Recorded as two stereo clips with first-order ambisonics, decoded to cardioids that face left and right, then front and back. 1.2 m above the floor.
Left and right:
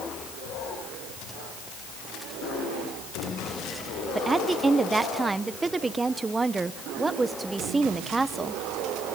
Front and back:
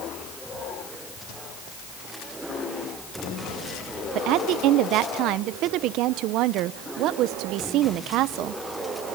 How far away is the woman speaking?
About 0.7 m.